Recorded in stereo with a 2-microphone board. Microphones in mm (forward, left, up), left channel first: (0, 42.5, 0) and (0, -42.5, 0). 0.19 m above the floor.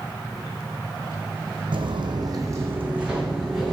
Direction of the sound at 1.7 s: 80° right.